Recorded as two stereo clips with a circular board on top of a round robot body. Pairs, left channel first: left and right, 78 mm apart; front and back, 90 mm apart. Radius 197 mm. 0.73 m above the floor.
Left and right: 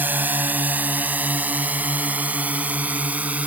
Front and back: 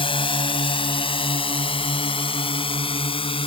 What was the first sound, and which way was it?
A drone, 25° right.